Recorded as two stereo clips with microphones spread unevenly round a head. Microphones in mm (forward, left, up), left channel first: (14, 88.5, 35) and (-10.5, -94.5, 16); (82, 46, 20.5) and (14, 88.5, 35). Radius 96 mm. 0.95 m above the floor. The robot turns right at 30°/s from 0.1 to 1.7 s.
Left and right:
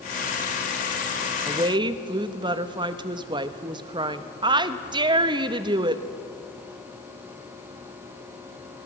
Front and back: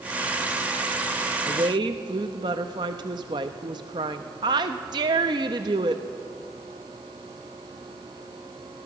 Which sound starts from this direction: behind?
A woman speaking, at 1.5 s.